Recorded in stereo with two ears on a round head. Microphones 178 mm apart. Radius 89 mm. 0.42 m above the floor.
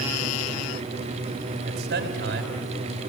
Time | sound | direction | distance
1.6 | a man speaking | 55° right (ahead or behind) | 3 m